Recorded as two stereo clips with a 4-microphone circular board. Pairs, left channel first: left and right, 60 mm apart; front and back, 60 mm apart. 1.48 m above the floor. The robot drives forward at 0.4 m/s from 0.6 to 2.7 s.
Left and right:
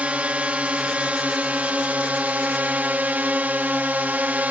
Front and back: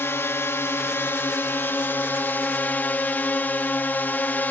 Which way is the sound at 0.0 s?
30° right.